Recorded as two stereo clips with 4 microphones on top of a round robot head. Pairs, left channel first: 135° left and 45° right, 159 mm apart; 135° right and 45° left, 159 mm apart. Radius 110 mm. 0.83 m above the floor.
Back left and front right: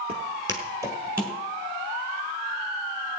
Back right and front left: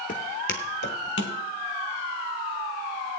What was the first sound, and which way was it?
Footsteps, 100° right.